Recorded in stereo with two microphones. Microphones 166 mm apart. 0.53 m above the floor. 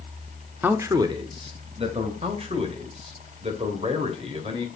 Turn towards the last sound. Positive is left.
turn(degrees=-40)  # may be behind; listen again after turning